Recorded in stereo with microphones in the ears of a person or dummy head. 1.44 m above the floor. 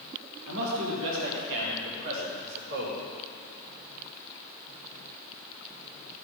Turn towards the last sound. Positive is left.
turn(degrees=-60)  # may be behind; listen again after turning